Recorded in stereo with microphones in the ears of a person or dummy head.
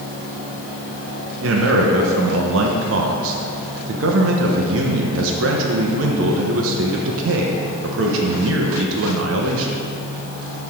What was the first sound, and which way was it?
A man speaking, 80° right.